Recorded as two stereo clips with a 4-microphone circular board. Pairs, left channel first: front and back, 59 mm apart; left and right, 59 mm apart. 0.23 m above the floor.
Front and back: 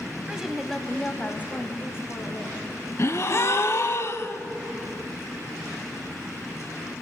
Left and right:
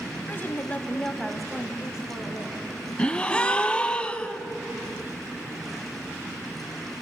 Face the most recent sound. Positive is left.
turn(degrees=20)